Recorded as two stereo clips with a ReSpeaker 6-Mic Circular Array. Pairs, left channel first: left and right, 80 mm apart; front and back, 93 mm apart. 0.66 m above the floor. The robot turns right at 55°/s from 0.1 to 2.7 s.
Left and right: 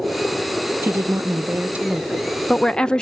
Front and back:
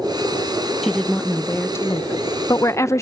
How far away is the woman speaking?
About 0.5 m.